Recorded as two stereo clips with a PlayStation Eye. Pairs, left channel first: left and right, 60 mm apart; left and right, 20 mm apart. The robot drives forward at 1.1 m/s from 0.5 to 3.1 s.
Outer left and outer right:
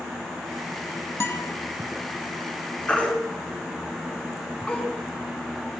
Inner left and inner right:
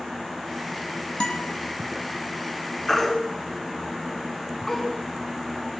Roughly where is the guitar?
Left.